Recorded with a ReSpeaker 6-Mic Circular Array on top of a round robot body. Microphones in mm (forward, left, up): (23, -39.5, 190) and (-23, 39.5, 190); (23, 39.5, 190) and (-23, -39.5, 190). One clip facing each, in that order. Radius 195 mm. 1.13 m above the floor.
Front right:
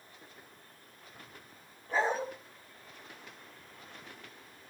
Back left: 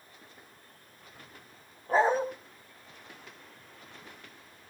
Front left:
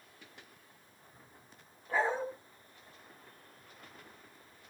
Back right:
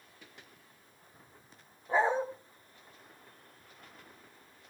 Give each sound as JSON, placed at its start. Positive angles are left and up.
{"t": 1.9, "sound": "a dog barking", "azimuth_deg": 170, "distance_m": 2.5}